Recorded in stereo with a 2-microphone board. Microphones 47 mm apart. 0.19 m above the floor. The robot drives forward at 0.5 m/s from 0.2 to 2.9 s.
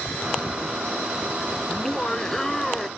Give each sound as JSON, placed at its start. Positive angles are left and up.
{"t": 1.7, "sound": "laughter", "side_deg": 15}